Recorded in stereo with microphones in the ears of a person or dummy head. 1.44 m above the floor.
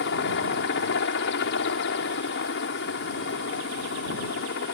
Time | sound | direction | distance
0.0 | a helicopter | 65° left (ahead or behind) | ?